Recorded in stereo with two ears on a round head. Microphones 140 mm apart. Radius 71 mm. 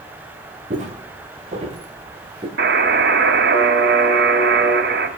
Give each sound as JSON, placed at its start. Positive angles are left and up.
{"t": 0.7, "sound": "footsteps", "side_deg": -45, "distance_m": 2.5}
{"t": 2.6, "sound": "a buzzer", "side_deg": -70, "distance_m": 2.5}